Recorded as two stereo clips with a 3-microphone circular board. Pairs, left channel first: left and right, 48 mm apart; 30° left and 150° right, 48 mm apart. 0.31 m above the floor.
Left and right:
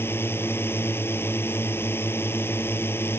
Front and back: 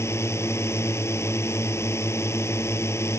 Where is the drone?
55° left.